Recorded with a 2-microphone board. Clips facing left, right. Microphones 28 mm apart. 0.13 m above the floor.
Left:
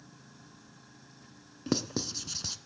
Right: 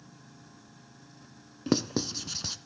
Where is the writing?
15° right (ahead or behind), 0.7 m.